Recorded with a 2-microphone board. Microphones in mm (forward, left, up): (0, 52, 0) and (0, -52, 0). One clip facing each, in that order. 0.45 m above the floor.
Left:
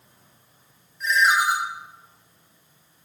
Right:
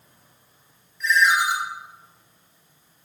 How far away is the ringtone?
About 0.7 m.